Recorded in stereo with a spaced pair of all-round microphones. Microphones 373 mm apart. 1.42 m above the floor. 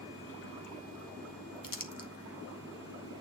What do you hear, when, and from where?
1.6 s crumpling: 60° left (ahead or behind), 1.6 m